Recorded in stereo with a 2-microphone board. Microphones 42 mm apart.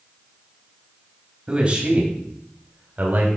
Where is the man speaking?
25° right (ahead or behind), 1.9 m; by 3.3 s 50° right (ahead or behind), 1.8 m.